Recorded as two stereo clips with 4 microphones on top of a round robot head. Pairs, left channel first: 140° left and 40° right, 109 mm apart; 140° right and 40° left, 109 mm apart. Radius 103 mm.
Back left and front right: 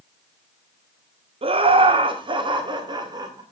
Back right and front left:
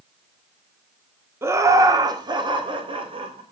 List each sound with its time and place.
1.4 s laughter: 25° right, 1.6 m; by 3.4 s 10° left, 2.5 m